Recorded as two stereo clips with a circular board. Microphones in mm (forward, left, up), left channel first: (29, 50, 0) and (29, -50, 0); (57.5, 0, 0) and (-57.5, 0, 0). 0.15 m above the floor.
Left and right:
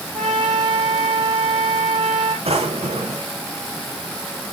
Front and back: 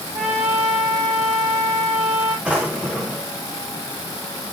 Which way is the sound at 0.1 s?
140° right.